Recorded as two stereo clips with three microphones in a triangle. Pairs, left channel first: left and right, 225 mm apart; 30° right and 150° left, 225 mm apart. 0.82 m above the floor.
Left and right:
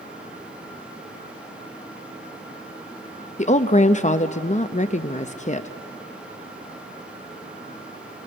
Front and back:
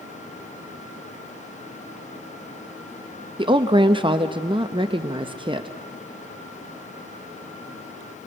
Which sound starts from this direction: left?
A woman speaking, at 3.4 s.